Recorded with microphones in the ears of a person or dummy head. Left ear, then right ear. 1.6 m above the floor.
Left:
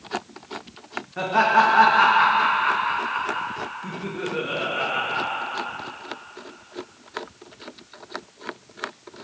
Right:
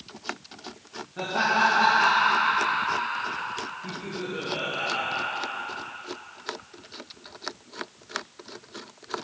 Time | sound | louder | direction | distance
1.2 | laughter | left 5 dB | 30° left (ahead or behind) | 2 m